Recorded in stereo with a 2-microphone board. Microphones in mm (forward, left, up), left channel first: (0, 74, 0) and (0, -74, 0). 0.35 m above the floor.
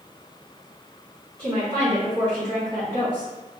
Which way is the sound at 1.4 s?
30° right (ahead or behind).